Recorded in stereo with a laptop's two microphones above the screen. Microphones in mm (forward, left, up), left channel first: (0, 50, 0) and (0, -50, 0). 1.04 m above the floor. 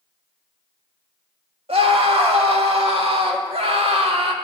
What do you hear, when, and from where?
1.7 s a scream: 75° right (ahead or behind), 1.8 m